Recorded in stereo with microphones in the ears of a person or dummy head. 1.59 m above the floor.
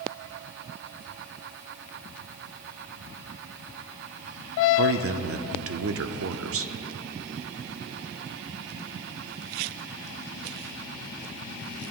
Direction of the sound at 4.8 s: 70° right (ahead or behind).